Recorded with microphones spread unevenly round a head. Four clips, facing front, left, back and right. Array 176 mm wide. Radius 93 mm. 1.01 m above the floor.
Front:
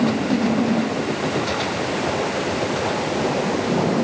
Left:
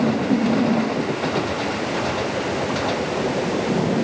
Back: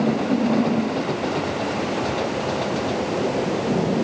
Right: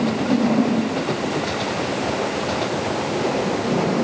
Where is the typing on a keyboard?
No typing on a keyboard in this recording.